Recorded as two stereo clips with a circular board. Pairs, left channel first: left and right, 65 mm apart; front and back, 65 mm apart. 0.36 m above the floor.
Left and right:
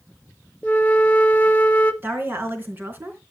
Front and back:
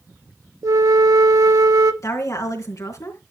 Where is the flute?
155° left, 0.9 m.